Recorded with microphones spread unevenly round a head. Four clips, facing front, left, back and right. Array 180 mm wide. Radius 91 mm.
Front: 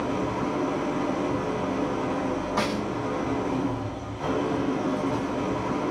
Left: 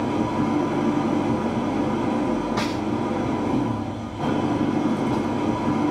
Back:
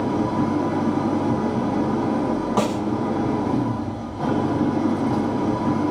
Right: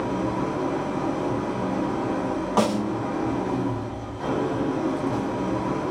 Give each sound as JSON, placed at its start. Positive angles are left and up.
{"t": 0.0, "sound": "an engine running", "azimuth_deg": 150, "distance_m": 3.5}
{"t": 2.6, "sound": "a snare drum", "azimuth_deg": -135, "distance_m": 0.9}